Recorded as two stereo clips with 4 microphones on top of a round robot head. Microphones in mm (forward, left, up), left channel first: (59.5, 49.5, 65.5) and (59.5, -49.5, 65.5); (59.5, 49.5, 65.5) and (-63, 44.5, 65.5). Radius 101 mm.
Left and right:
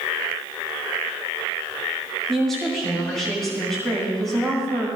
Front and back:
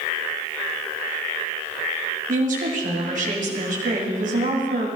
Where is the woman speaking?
175° left, 1.8 m.